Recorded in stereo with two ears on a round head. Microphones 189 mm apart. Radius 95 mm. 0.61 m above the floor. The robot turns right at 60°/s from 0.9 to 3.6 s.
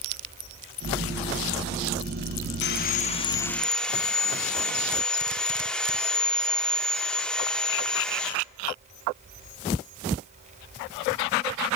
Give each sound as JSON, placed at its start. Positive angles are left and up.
{"t": 2.6, "sound": "sawing", "azimuth_deg": 115, "distance_m": 0.7}